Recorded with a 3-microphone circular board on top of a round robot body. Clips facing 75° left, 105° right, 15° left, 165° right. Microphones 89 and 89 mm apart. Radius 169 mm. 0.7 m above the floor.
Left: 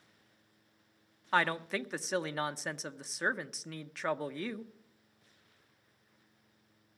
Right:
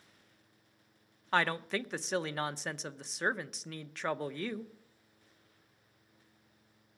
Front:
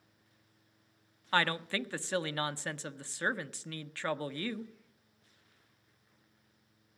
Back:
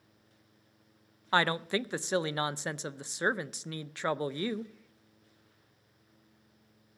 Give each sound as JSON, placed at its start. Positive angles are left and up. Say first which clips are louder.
{"t": 1.3, "sound": "a woman speaking", "louder": "even, back 3 dB", "azimuth_deg": 160, "distance_m": 0.7}